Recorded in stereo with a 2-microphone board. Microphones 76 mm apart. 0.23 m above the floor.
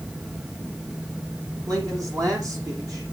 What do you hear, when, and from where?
1.7 s a man speaking: 50° right (ahead or behind), 9 m